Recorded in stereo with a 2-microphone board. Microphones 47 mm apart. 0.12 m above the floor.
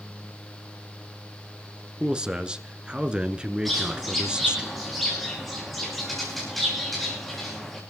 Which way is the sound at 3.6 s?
Centre (ahead or behind).